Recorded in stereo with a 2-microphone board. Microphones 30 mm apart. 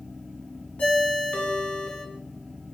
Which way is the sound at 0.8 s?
55° left (ahead or behind).